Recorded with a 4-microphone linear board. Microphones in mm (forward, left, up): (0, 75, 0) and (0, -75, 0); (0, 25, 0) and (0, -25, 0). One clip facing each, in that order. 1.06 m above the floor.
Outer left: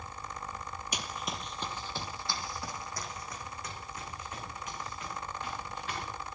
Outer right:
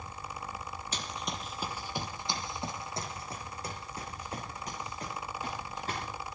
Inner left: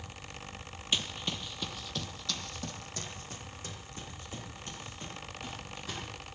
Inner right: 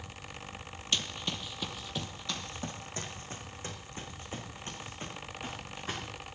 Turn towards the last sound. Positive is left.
turn(degrees=-40)  # may be behind; listen again after turning